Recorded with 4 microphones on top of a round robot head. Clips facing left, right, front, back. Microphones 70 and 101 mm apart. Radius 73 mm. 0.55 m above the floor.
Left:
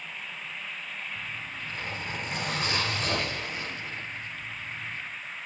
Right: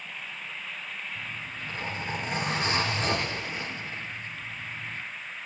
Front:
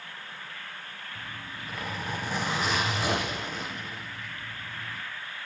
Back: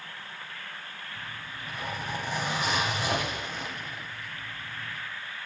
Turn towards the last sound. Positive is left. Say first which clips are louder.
# even, front 1 dB
turn(degrees=-25)